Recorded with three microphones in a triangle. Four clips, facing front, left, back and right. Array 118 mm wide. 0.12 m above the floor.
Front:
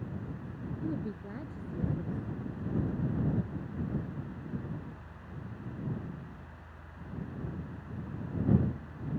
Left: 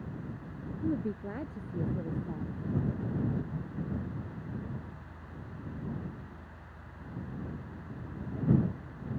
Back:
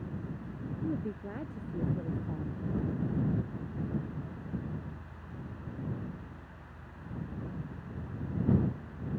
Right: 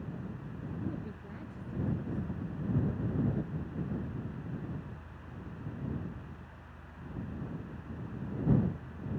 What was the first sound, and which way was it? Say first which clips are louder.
A woman speaking: left 12 dB, back 1 dB; 95° left.